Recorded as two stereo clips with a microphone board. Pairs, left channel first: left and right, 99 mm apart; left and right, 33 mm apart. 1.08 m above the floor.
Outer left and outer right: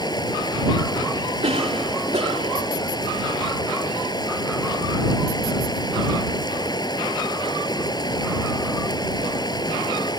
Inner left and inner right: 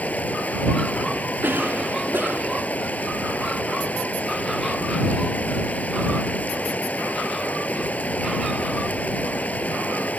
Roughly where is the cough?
Right.